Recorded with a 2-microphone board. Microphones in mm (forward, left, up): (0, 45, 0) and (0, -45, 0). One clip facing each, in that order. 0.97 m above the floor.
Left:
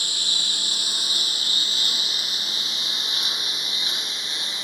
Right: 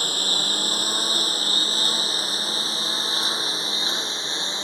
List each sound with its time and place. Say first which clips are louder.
0.0 s a lawn mower: right 5 dB; 45° right (ahead or behind); by 4.7 s 30° right (ahead or behind)